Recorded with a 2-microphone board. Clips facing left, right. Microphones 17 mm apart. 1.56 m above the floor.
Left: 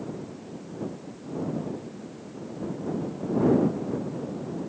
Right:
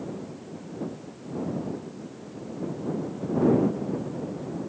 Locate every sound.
Only background noise.